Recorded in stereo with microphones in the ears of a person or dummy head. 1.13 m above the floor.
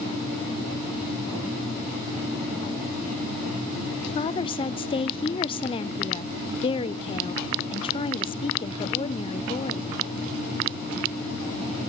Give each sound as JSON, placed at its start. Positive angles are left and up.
{"t": 4.2, "sound": "a woman speaking", "side_deg": 20, "distance_m": 0.7}